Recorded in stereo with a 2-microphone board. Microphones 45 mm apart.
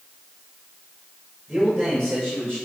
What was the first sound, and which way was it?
A man speaking, 5° left (ahead or behind).